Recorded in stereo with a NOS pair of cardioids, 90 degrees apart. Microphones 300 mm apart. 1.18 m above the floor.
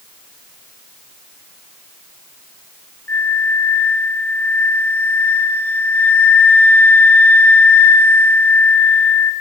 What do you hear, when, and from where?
3.1 s a flute: 5° left, 0.5 m